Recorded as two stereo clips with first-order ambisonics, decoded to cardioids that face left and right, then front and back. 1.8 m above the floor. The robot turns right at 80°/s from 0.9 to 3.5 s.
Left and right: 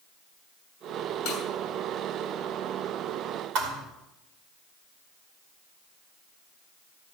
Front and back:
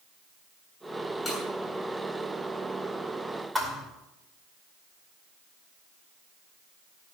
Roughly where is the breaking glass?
Left.